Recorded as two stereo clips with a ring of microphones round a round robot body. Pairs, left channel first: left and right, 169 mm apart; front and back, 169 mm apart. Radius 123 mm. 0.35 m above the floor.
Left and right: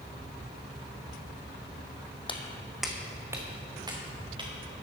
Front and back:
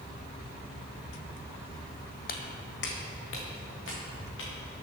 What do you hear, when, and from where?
2.3 s footsteps: 30° left, 1.1 m; by 4.5 s 30° right, 3.5 m